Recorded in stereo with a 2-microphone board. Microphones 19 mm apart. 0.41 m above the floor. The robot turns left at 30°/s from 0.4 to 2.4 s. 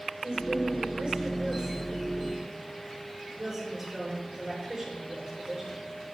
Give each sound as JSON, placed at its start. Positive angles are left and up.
{"t": 0.2, "sound": "a woman speaking", "azimuth_deg": -100, "distance_m": 6.5}